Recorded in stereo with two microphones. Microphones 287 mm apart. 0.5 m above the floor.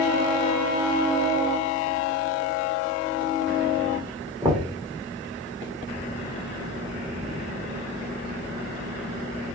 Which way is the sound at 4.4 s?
10° right (ahead or behind).